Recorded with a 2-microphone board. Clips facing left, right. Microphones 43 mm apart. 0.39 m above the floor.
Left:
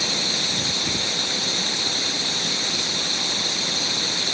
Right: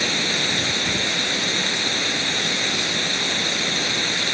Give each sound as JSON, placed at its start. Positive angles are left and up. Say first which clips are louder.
{"t": 0.0, "sound": "running water", "louder": "right 3 dB", "side_deg": -40}